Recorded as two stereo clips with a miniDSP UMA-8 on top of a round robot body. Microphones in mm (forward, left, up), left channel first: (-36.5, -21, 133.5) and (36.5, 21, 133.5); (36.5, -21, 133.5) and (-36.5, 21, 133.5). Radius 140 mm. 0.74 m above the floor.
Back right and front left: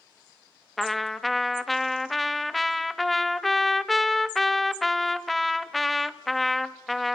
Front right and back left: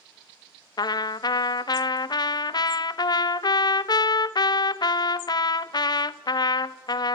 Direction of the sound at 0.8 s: 60° right.